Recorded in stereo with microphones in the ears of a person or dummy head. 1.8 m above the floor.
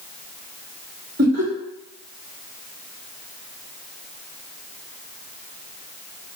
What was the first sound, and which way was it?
Laughter, 45° right (ahead or behind).